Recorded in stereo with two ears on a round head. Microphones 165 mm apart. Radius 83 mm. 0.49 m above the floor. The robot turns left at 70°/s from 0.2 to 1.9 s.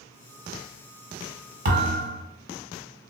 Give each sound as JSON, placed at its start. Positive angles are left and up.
{"t": 1.6, "sound": "a thud", "side_deg": -45, "distance_m": 1.2}